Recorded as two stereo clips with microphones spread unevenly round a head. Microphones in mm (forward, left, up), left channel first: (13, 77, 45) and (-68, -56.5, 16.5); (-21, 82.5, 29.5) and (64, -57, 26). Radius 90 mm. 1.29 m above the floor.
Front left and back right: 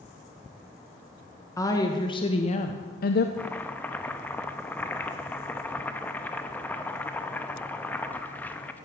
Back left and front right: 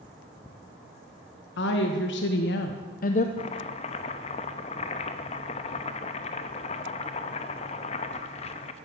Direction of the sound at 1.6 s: 130° left.